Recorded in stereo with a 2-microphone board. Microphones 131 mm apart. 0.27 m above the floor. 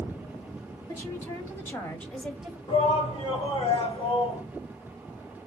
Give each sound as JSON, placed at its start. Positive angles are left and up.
{"t": 0.9, "sound": "a woman speaking", "side_deg": 25, "distance_m": 2.0}
{"t": 2.7, "sound": "a shout", "side_deg": 40, "distance_m": 3.0}